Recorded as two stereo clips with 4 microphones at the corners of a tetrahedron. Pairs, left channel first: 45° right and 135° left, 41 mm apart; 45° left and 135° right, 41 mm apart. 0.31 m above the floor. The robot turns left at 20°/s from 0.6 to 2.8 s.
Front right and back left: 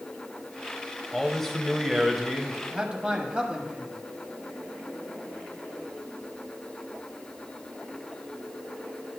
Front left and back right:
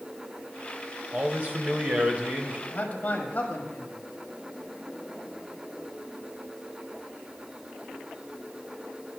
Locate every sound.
1.1 s a man speaking: 120° right, 1.1 m; by 2.6 s 150° right, 1.1 m
2.7 s a man speaking: 80° left, 1.4 m